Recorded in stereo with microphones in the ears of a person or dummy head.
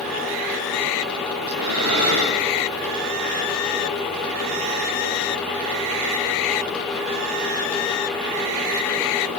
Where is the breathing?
80° right, 5 m.